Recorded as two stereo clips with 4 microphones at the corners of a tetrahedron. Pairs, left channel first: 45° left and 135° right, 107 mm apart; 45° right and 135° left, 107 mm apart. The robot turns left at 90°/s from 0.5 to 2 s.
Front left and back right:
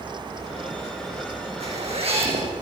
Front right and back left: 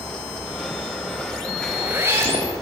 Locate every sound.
1.6 s a zipper: 125° right, 6.5 m; by 2.5 s 160° right, 6.5 m